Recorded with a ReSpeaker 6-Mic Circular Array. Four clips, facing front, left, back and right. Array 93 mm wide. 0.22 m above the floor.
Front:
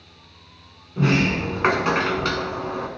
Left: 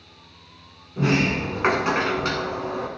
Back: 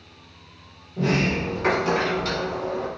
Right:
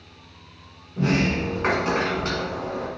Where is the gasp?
No gasp in this recording.